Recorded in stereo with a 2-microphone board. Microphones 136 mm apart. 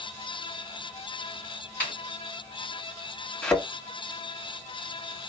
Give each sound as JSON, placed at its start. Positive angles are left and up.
{"t": 1.8, "sound": "a snare drum", "side_deg": 10, "distance_m": 2.5}
{"t": 3.4, "sound": "a thud", "side_deg": 10, "distance_m": 1.2}